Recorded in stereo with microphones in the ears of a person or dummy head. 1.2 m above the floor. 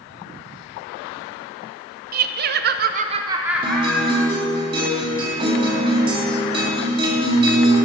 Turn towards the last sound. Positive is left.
turn(degrees=-30)  # may be behind; listen again after turning